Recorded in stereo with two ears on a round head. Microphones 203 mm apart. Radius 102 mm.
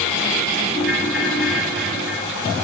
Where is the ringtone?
Centre (ahead or behind), 4.5 m.